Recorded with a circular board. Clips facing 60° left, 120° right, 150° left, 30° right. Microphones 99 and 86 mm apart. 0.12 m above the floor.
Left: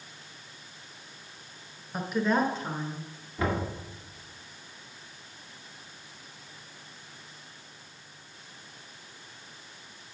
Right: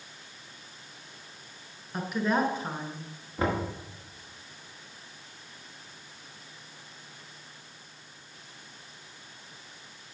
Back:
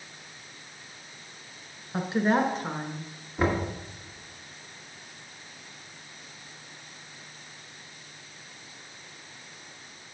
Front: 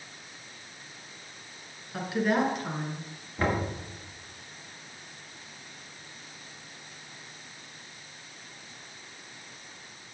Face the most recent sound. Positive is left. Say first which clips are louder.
# right 1 dB, back 2 dB
turn(degrees=-145)